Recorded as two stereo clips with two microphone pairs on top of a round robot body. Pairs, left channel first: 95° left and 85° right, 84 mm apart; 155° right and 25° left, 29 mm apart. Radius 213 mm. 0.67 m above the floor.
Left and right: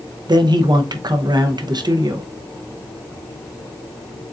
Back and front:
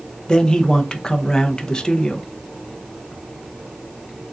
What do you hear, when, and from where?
0.3 s a man speaking: 95° right, 0.8 m